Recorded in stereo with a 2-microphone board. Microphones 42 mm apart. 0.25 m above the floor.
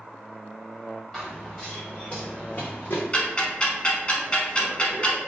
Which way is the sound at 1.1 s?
5° left (ahead or behind).